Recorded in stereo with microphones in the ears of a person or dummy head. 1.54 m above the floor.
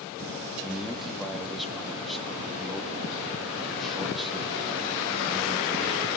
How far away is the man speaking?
About 2.5 m.